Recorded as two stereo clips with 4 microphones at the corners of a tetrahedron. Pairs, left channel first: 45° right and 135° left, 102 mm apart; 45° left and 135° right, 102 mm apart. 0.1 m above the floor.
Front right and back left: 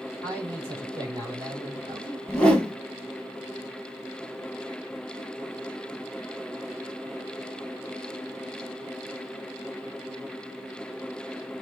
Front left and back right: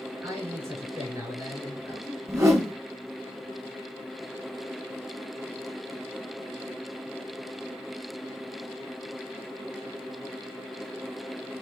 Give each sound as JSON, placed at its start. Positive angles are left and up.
{"t": 0.2, "sound": "a man speaking", "azimuth_deg": 170, "distance_m": 2.5}
{"t": 2.3, "sound": "a whoosh", "azimuth_deg": -115, "distance_m": 0.9}